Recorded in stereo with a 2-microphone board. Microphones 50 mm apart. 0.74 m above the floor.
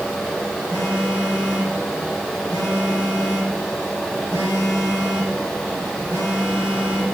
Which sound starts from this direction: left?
A phone buzzing, at 0.7 s.